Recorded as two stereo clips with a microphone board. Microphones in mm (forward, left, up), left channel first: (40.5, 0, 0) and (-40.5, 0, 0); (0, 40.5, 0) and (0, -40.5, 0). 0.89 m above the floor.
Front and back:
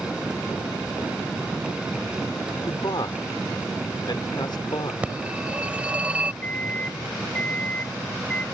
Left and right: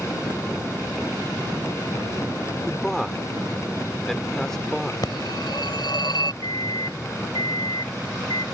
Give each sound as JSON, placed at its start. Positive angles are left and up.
{"t": 2.6, "sound": "a man speaking", "azimuth_deg": 5}
{"t": 5.0, "sound": "a phone ringing", "azimuth_deg": 105}
{"t": 6.4, "sound": "a microwave", "azimuth_deg": 70}